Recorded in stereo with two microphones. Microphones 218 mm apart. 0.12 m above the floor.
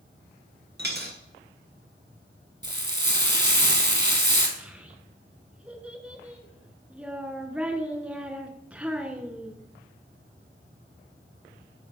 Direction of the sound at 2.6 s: 55° right (ahead or behind).